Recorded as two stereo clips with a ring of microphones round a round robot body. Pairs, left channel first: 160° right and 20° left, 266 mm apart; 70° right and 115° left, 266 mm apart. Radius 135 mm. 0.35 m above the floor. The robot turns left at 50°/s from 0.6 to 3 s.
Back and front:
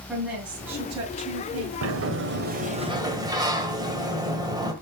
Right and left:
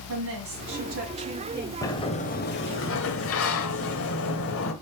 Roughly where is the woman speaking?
Left.